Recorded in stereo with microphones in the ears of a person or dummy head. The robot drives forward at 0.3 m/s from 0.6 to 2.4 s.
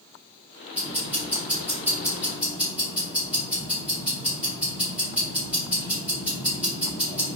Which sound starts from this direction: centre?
Ticking, at 0.7 s.